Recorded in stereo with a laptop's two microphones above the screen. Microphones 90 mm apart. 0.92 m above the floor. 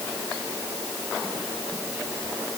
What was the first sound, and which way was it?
Only background noise.